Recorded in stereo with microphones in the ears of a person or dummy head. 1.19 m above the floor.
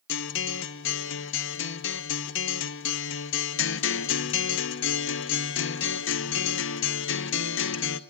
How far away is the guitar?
About 0.8 m.